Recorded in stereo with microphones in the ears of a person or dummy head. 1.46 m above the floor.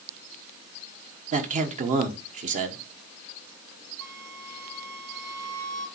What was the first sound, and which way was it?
A man speaking, 45° right (ahead or behind).